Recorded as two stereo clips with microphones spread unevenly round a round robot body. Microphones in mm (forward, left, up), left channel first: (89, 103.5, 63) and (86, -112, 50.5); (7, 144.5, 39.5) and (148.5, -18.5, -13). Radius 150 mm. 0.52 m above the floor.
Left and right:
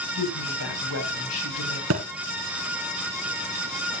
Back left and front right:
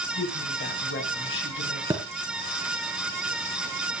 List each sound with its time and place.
0.1 s a woman speaking: 105° left, 4 m
1.9 s a thud: 130° right, 1.9 m